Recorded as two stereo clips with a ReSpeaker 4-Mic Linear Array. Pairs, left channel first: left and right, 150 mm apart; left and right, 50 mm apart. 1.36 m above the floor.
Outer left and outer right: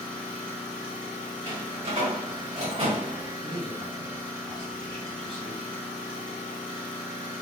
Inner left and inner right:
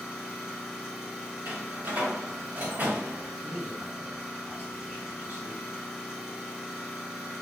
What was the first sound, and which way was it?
An engine running, 15° right (ahead or behind).